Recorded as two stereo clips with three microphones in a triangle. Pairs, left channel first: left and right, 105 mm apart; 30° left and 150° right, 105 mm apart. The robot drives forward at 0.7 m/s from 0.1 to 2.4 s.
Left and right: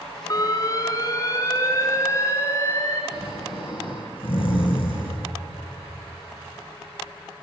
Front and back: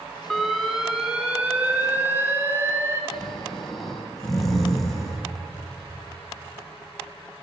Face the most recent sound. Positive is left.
turn(degrees=120)